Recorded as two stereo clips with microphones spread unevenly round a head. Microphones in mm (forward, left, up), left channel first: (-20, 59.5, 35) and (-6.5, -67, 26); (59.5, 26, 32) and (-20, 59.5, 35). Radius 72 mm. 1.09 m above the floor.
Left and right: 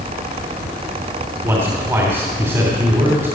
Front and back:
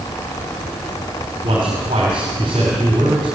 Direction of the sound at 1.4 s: 155° right.